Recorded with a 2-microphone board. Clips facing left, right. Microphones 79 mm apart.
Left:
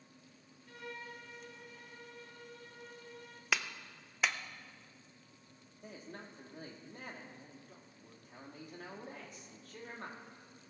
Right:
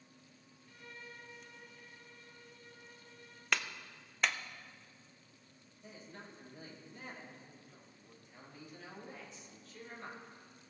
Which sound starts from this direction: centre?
A clap, at 3.5 s.